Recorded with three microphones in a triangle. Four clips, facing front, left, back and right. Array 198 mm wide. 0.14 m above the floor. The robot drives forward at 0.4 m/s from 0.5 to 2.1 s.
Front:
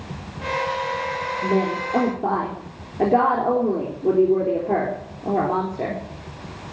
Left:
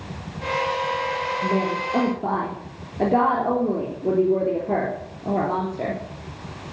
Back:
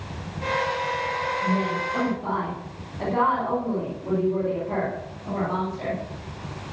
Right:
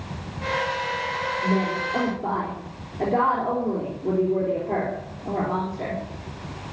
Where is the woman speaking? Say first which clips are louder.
Even, front 7 dB; 30° left, 3.5 m; by 6.0 s 35° left, 3 m.